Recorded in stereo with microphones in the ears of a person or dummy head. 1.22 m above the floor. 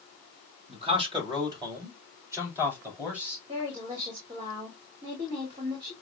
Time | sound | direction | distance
0.7 | a man speaking | 40° right (ahead or behind) | 3 m
3.5 | a woman speaking | 35° right (ahead or behind) | 2.5 m